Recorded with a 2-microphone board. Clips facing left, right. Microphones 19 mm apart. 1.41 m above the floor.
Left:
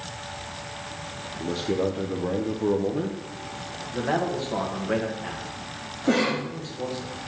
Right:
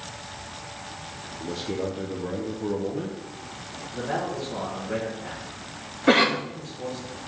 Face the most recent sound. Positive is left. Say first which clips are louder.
# right 4 dB
turn(degrees=-55)  # may be behind; listen again after turning